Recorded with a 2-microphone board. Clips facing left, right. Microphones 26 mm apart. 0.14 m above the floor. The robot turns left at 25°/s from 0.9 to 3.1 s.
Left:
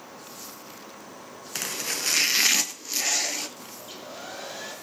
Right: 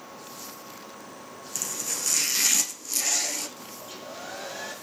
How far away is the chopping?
About 0.8 m.